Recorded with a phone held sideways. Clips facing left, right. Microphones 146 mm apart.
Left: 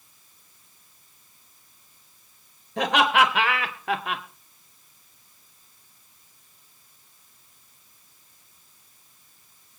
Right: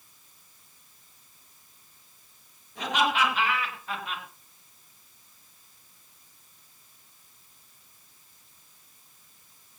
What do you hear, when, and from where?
2.8 s laughter: 85° left, 4 m; by 4.2 s 75° left (ahead or behind), 1.9 m